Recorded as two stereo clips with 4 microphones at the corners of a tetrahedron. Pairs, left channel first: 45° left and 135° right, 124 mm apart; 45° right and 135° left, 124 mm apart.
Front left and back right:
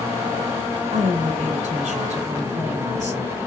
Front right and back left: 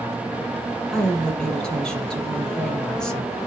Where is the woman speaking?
130° right, 2.5 m.